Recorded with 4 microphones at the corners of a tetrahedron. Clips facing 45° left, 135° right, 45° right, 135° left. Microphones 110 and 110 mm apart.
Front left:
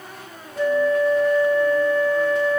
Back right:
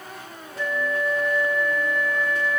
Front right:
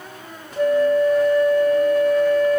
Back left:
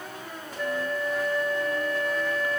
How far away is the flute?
About 0.9 m.